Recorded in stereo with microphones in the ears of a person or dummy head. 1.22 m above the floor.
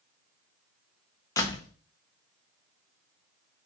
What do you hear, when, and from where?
1.4 s a door slam: 25° left (ahead or behind), 1.1 m